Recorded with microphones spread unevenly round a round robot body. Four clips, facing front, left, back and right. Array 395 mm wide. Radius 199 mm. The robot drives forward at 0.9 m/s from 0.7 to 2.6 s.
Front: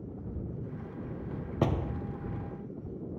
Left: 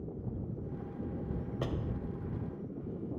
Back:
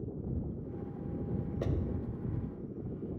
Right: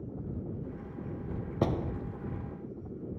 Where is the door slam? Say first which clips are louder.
Right 9 dB, front 8 dB; 30° right; by 1.9 s 35° right.